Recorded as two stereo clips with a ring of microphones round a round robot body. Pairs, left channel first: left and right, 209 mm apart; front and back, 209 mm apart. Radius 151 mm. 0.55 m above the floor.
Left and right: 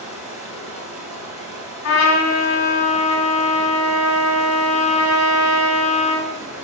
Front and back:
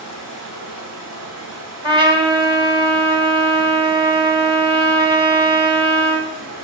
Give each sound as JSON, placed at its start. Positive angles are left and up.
{"t": 0.0, "sound": "running water", "azimuth_deg": -140, "distance_m": 1.5}
{"t": 1.8, "sound": "a trumpet", "azimuth_deg": 110, "distance_m": 1.3}